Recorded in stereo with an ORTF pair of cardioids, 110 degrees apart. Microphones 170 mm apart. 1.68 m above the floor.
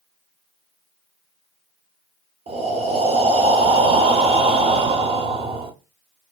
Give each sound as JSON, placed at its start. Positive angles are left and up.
{"t": 2.5, "sound": "breathing", "azimuth_deg": -35, "distance_m": 0.8}